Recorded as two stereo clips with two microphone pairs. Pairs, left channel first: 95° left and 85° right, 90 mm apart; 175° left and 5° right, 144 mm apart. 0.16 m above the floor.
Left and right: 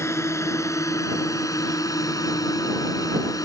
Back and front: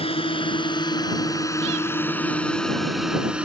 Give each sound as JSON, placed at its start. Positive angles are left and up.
{"t": 0.0, "sound": "a drone", "azimuth_deg": 145}